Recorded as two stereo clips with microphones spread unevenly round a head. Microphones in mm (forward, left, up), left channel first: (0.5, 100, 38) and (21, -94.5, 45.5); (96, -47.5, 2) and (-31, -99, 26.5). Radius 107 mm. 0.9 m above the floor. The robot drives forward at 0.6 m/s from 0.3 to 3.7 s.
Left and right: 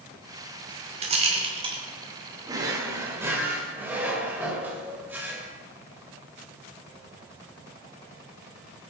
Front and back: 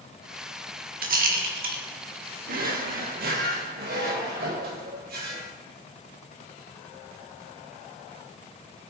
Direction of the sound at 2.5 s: 155° right.